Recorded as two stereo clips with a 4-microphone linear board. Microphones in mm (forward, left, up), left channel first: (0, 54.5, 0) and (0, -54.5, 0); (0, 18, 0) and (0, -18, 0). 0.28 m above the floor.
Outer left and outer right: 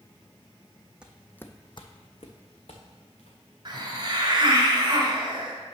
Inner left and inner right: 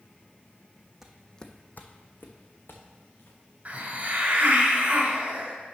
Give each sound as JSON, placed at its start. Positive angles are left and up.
{"t": 1.0, "sound": "footsteps", "side_deg": -10, "distance_m": 0.7}
{"t": 3.6, "sound": "a hiss", "side_deg": -45, "distance_m": 1.5}